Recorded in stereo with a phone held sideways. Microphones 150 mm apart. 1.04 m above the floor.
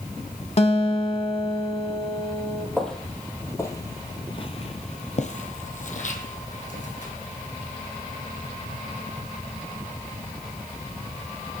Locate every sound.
0.6 s a guitar: 45° left (ahead or behind), 1.3 m
2.8 s footsteps: 5° left (ahead or behind), 2.0 m; by 7.1 s 55° left (ahead or behind), 2.5 m